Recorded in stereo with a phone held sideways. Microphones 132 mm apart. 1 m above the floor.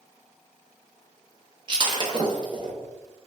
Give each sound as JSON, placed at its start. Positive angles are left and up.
{"t": 1.7, "sound": "breaking glass", "side_deg": -35, "distance_m": 0.8}